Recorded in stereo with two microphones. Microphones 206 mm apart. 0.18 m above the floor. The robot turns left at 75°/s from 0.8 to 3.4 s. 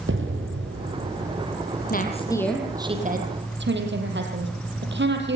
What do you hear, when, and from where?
0.1 s an explosion: 85° right, 5 m; by 1.5 s 140° right, 5 m
1.9 s a woman speaking: 50° left, 5.5 m; by 5.4 s 65° right, 5.5 m